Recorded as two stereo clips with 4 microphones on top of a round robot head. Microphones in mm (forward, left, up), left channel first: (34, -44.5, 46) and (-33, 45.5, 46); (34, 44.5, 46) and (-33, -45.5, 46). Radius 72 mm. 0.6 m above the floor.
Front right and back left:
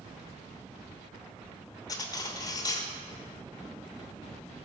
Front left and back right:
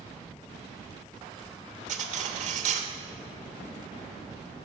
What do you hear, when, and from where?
1.9 s cutlery clinking: 115° right, 1.0 m